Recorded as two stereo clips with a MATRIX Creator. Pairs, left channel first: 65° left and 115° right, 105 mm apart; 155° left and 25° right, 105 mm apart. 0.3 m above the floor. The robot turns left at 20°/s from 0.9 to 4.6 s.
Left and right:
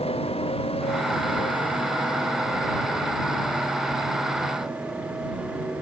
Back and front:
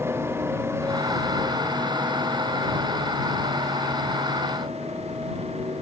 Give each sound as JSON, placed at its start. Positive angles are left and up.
{"t": 0.0, "sound": "a motorcycle", "azimuth_deg": 45}